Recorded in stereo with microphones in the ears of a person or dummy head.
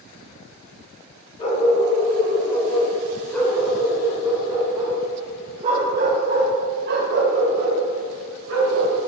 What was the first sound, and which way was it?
A dog barking, 30° left (ahead or behind).